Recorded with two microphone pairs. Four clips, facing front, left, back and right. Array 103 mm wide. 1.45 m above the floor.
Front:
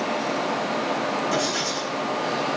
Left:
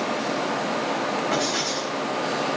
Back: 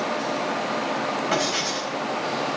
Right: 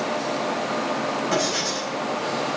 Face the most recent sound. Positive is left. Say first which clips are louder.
# right 1 dB, even
turn(degrees=170)